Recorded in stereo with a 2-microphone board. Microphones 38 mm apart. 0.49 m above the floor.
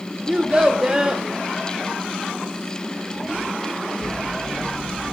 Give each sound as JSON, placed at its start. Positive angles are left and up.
{"t": 0.3, "sound": "a child speaking", "side_deg": -25, "distance_m": 0.5}